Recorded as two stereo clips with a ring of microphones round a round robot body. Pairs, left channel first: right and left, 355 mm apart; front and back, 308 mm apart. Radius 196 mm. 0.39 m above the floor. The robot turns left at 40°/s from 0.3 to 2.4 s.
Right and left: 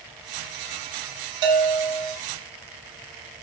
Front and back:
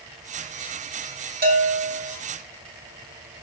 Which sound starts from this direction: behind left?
A bell, at 1.4 s.